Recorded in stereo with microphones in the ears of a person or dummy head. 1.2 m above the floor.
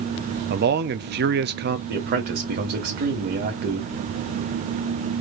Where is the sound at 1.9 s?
50° right (ahead or behind), 1.7 m.